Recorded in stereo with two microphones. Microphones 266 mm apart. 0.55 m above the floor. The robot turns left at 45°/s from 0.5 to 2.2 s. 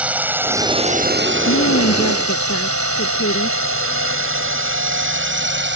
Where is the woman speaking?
95° left; by 3.6 s 65° left.